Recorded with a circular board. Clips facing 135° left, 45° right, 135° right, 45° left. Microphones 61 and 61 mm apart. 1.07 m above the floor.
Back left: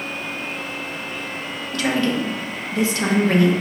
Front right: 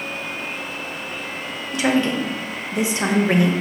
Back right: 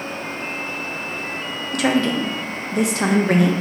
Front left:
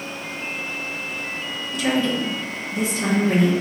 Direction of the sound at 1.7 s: 115° right.